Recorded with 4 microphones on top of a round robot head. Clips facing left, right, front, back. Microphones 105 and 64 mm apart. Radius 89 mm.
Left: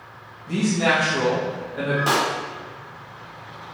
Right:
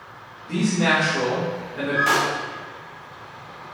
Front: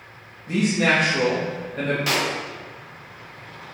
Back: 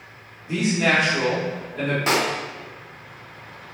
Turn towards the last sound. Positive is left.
turn(degrees=140)